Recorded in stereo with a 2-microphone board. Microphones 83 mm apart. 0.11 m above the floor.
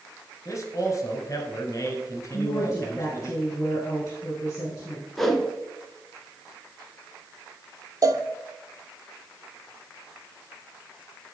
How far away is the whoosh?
About 0.8 m.